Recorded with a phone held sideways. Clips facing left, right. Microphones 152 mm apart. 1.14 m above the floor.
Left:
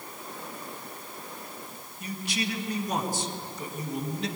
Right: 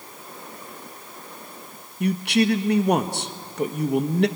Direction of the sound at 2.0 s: 70° right (ahead or behind).